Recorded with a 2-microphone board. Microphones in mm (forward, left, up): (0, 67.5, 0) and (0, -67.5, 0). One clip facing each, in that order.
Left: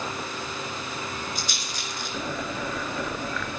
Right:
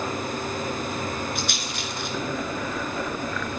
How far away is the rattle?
About 2.5 m.